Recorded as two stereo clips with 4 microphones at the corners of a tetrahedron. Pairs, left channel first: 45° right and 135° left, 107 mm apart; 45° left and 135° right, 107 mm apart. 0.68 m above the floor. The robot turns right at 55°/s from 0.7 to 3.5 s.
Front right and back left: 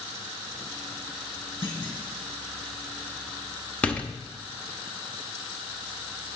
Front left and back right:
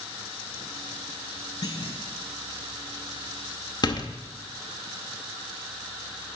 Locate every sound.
1.6 s a clunk: 5° right, 3 m; by 2.0 s 15° left, 3 m
3.8 s a door slam: 25° left, 0.8 m